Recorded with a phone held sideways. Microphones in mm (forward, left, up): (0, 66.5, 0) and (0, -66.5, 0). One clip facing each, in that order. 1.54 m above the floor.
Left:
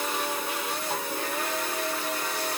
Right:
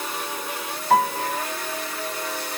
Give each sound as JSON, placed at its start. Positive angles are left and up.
{"t": 0.9, "sound": "a piano", "side_deg": -85}